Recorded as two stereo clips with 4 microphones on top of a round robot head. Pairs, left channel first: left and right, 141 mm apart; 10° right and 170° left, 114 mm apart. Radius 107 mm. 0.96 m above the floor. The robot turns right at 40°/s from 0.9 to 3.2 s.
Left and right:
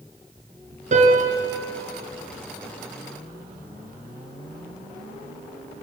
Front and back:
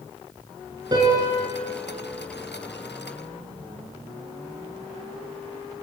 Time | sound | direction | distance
0.9 | a piano | 125° right | 4.5 m